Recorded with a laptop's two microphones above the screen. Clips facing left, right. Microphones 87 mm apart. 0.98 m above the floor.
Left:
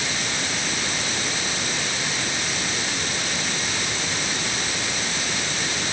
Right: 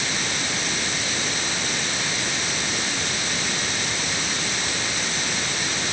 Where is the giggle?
No giggle in this recording.